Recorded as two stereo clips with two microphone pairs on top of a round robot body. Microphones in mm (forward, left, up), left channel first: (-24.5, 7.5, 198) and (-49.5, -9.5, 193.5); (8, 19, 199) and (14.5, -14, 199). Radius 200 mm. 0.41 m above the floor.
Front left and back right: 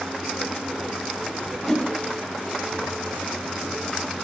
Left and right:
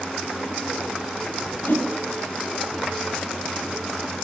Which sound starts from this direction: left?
A whoosh, at 1.6 s.